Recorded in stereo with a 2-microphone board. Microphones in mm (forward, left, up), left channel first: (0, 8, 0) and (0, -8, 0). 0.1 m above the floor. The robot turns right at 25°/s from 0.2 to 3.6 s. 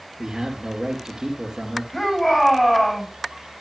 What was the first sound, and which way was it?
A man speaking, 110° right.